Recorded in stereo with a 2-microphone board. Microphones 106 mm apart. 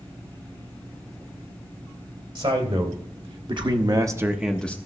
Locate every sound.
2.4 s a man speaking: 65° right (ahead or behind), 2.5 m; by 4.8 s 15° left (ahead or behind), 0.8 m